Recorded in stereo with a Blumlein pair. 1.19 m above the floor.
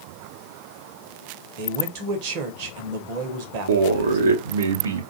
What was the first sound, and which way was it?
A man speaking, 45° right.